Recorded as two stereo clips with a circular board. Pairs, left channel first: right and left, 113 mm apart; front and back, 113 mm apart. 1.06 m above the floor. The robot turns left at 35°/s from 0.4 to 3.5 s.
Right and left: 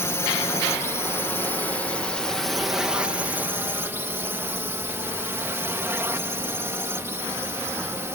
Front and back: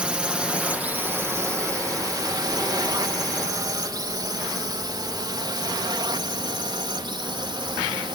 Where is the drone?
110° right; by 8.1 s 150° left.